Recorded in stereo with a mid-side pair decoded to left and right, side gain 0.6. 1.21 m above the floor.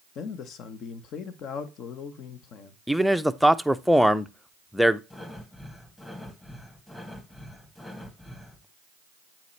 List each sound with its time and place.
0.1 s a man speaking: 55° left, 1.0 m
2.9 s a man speaking: straight ahead, 0.5 m
5.1 s breathing: 20° left, 2 m